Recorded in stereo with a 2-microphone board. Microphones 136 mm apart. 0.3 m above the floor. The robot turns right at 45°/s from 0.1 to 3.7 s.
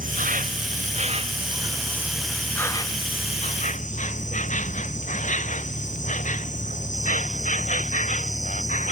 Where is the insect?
95° right; by 8.9 s 65° left.